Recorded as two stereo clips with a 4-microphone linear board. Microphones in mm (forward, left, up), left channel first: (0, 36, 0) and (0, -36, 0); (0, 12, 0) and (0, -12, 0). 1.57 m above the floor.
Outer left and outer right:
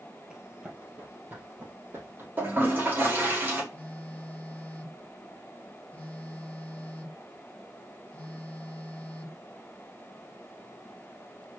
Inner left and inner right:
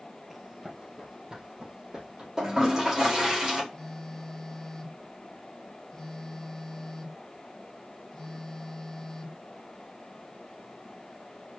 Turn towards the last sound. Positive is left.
turn(degrees=20)  # may be behind; listen again after turning